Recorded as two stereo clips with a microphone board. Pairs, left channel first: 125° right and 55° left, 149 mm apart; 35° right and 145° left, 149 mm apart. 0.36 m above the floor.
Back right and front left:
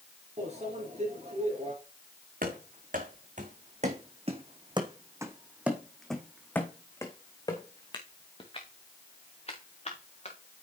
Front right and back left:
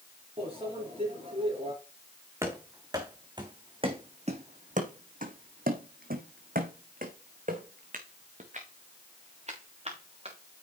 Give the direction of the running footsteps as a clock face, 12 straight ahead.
10 o'clock.